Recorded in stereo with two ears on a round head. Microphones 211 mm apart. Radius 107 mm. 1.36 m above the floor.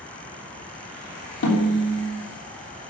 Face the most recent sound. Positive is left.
turn(degrees=60)  # may be behind; listen again after turning